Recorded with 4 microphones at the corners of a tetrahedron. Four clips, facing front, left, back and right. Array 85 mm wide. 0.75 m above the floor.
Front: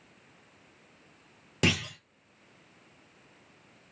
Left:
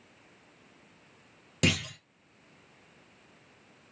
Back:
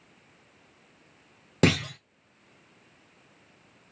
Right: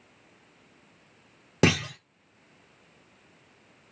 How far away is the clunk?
About 0.8 m.